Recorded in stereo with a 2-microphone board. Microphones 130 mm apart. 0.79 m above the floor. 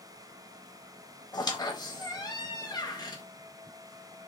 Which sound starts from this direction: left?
A squeak, at 1.3 s.